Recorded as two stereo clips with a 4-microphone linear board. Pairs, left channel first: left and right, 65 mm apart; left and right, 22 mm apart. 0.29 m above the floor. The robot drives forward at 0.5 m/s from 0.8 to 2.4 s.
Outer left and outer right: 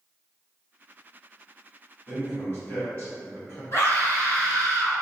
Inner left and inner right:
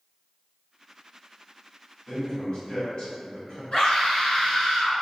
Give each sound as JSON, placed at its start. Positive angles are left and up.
{"t": 2.1, "sound": "a man speaking", "side_deg": 25, "distance_m": 1.2}
{"t": 3.7, "sound": "a scream", "side_deg": 40, "distance_m": 1.5}